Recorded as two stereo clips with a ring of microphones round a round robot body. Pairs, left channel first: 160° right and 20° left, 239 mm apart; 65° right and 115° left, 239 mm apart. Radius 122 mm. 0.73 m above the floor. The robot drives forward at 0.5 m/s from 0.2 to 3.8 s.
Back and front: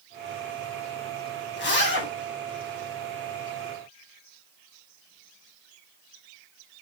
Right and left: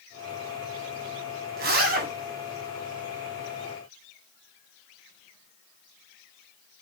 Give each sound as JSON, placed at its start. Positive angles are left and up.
{"t": 1.6, "sound": "a zipper", "azimuth_deg": 165, "distance_m": 2.5}